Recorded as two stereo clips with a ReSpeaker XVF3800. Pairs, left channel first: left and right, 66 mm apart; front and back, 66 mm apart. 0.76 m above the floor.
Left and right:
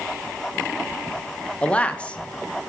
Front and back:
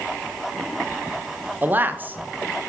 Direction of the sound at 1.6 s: 145° left.